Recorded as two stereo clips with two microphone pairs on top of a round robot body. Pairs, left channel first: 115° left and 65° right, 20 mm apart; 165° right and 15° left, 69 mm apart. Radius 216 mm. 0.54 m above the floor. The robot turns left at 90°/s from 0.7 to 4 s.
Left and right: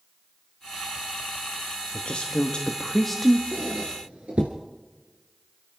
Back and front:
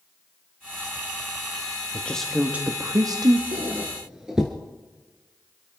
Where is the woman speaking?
135° left, 1.3 m; by 3.4 s 5° left, 1.3 m.